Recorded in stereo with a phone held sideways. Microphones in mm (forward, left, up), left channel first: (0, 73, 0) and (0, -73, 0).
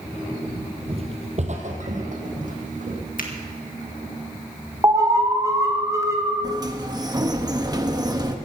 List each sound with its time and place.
0.9 s footsteps: 40° right (ahead or behind), 1.9 m; by 3.0 s 65° right (ahead or behind), 4.5 m
3.2 s a finger snap: 70° left (ahead or behind), 1.9 m
4.8 s an alarm: 20° right (ahead or behind), 1.6 m
6.4 s a sliding door: 25° right (ahead or behind), 1.1 m